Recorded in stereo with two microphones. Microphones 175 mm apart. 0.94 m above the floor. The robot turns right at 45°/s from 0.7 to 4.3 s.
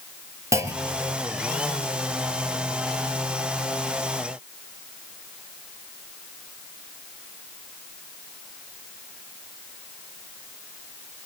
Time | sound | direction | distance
0.5 | a clunk | 15° right (ahead or behind) | 1.1 m